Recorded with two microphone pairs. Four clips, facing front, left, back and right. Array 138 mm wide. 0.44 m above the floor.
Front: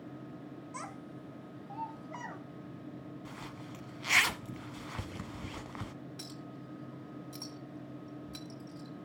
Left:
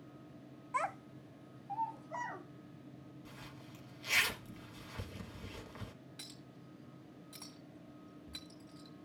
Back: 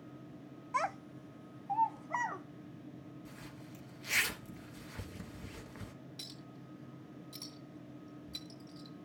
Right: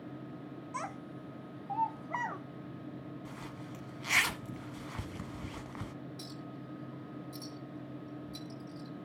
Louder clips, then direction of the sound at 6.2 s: Right 10 dB, front 5 dB; 25° left.